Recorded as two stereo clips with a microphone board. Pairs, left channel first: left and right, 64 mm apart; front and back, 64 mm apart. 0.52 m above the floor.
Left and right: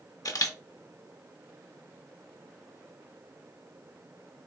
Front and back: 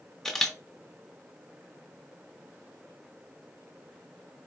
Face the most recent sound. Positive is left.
turn(degrees=80)